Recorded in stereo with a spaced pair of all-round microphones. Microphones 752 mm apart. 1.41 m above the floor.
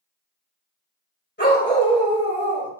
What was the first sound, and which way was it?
A dog barking, 15° left (ahead or behind).